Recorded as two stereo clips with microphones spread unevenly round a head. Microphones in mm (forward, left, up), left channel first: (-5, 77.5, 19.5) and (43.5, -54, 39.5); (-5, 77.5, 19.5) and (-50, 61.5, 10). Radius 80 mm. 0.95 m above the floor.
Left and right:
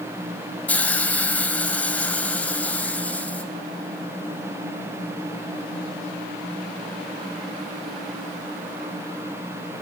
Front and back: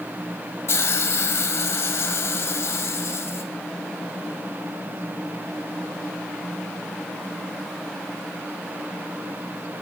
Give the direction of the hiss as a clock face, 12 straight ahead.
11 o'clock.